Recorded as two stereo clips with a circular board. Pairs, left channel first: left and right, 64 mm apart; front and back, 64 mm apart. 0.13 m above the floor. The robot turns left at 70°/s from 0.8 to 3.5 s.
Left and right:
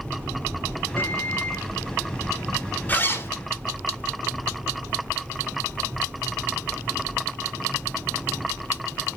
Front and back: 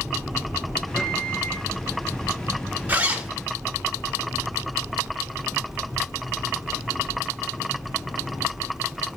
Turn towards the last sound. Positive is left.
turn(degrees=90)